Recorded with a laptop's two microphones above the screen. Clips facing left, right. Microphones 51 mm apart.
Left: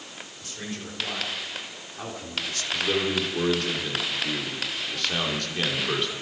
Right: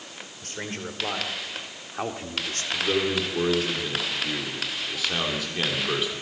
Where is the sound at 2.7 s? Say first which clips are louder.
Right 1 dB; 5° right (ahead or behind), 3 m.